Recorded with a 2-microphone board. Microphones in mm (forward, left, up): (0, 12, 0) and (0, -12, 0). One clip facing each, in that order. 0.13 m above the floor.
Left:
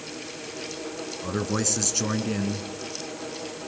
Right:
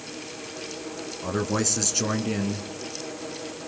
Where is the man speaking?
5° right (ahead or behind), 1.2 m.